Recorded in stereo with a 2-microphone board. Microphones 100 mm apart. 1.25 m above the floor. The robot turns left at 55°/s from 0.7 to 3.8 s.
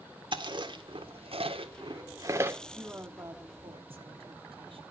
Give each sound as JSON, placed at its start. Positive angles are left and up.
{"t": 0.3, "sound": "chewing", "side_deg": -55, "distance_m": 1.7}
{"t": 2.7, "sound": "a woman speaking", "azimuth_deg": -5, "distance_m": 2.5}